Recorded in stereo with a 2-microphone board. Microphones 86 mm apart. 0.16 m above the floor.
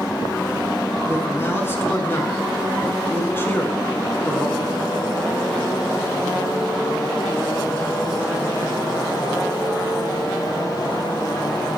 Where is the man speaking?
30° left (ahead or behind), 1.2 m.